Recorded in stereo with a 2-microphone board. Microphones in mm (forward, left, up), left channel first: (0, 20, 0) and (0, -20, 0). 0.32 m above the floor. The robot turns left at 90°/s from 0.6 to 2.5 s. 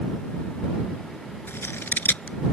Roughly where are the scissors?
Left.